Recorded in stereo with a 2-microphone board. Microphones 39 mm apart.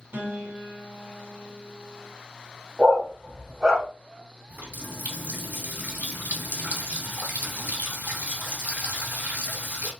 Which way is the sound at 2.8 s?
5° right (ahead or behind).